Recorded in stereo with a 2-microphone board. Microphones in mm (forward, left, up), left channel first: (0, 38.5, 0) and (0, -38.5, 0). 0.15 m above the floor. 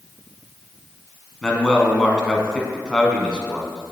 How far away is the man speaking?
About 1.0 m.